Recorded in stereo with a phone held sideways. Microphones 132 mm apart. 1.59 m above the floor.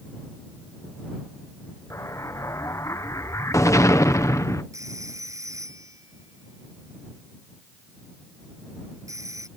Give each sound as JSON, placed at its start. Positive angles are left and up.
{"t": 1.9, "sound": "an explosion", "side_deg": 25}
{"t": 4.7, "sound": "a phone ringing", "side_deg": -25}